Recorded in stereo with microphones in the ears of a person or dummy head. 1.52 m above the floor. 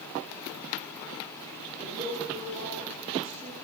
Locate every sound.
1.8 s a woman speaking: 40° right (ahead or behind), 5 m